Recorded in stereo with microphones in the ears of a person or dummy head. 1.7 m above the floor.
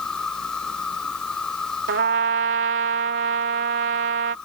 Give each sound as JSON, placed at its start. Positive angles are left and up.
{"t": 0.0, "sound": "an insect", "side_deg": 5}
{"t": 1.9, "sound": "a trumpet", "side_deg": -45}